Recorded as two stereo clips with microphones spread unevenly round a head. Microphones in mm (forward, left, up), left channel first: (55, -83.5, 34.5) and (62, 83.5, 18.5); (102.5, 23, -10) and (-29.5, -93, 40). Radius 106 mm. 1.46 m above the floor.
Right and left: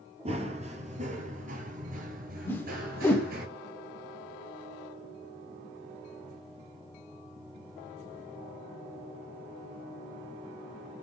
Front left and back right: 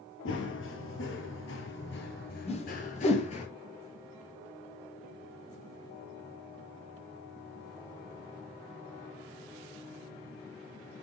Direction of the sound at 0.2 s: 40° left.